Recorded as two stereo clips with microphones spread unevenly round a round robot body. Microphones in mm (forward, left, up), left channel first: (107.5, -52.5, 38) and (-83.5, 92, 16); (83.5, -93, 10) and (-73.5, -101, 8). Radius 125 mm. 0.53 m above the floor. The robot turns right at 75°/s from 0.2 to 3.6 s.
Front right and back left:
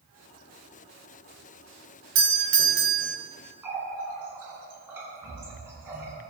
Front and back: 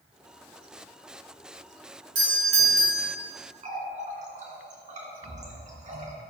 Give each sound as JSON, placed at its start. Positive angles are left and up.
{"t": 2.1, "sound": "a doorbell", "azimuth_deg": 135, "distance_m": 2.0}
{"t": 3.6, "sound": "a running tap", "azimuth_deg": -135, "distance_m": 3.5}